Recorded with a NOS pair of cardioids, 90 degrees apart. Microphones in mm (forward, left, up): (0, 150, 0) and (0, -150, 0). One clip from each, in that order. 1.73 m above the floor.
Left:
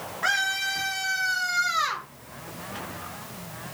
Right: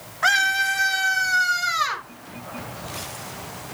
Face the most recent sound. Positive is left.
turn(degrees=-25)